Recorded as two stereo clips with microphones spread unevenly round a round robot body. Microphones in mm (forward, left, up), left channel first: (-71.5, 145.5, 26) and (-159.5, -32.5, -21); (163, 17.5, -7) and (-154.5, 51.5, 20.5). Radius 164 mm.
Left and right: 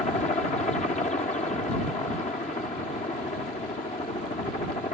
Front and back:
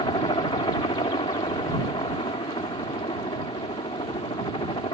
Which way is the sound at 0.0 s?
35° left.